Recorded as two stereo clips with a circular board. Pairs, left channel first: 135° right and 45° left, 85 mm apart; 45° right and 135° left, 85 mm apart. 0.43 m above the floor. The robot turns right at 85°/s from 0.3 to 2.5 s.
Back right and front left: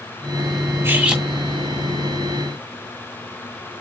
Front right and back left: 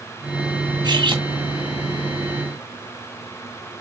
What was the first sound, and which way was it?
Cutlery clinking, 100° left.